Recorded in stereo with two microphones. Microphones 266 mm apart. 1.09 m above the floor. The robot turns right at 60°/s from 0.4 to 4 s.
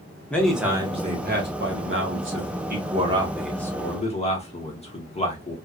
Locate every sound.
0.3 s a man speaking: 175° left, 0.9 m; by 5.5 s 30° left, 0.9 m